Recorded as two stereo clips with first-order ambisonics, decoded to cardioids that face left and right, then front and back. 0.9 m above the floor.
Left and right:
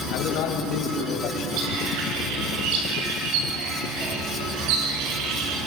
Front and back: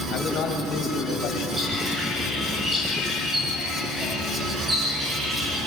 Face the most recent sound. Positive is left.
turn(degrees=-100)